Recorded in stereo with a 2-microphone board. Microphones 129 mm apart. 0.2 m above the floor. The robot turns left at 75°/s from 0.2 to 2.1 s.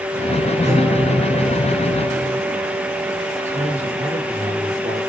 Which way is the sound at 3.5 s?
60° right (ahead or behind).